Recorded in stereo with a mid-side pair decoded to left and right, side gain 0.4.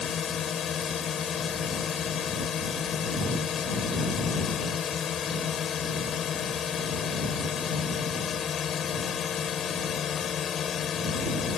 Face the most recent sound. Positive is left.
turn(degrees=60)